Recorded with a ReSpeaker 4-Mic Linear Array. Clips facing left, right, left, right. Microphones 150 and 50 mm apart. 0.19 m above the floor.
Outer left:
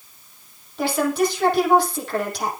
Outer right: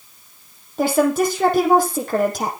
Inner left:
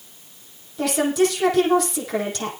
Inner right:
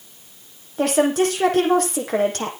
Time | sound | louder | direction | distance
0.8 | a woman speaking | outer right 4 dB, inner right 2 dB | 45° right (ahead or behind) | 6.5 m